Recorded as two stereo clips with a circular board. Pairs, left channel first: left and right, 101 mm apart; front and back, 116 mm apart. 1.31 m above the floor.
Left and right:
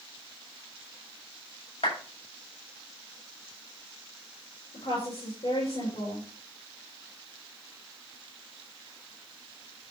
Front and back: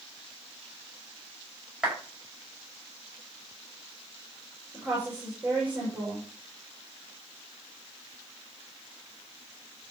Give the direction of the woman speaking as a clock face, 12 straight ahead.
9 o'clock.